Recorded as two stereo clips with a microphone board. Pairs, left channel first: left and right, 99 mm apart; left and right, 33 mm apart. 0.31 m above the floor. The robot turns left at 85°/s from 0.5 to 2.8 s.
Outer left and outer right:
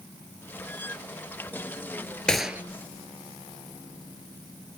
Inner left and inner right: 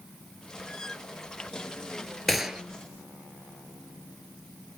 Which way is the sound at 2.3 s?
10° left (ahead or behind).